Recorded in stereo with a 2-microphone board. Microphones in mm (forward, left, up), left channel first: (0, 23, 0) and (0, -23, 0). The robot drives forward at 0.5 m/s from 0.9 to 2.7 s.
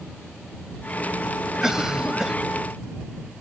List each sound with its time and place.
1.6 s a cough: 10° right (ahead or behind)